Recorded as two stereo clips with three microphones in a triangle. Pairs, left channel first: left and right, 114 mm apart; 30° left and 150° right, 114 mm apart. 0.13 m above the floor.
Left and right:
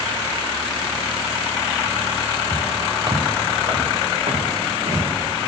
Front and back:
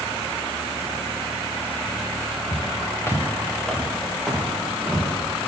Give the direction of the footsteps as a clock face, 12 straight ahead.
1 o'clock.